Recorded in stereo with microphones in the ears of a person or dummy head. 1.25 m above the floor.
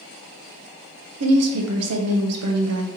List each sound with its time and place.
1.2 s a woman speaking: 75° right (ahead or behind), 0.7 m